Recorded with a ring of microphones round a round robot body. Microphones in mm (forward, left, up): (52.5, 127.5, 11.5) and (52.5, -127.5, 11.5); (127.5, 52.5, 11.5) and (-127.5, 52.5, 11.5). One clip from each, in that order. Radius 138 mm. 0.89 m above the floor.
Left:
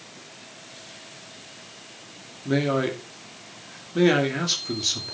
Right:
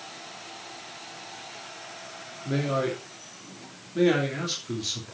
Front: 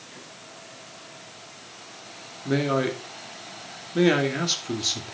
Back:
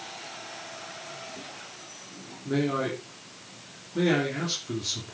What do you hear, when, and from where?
2.5 s a man speaking: 30° left, 2.5 m